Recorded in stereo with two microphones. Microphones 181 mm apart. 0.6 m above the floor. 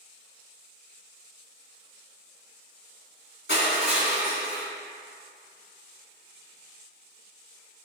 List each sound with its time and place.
3.5 s crushing: 85° left, 1.7 m